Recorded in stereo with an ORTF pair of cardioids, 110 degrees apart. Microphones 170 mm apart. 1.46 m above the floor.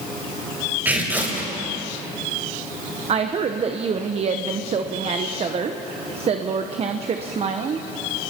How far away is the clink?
No clink in this recording.